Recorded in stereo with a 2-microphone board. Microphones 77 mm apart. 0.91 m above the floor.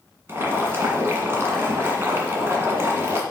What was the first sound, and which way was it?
Boiling, 30° right (ahead or behind).